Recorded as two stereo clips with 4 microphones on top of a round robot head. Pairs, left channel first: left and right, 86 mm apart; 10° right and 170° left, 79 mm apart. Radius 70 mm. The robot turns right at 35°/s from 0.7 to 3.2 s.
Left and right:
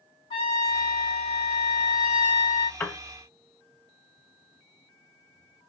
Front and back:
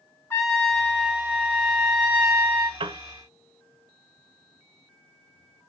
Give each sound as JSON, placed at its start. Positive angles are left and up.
{"t": 0.3, "sound": "a trumpet", "azimuth_deg": 50, "distance_m": 1.5}
{"t": 2.8, "sound": "a piano", "azimuth_deg": 155, "distance_m": 0.8}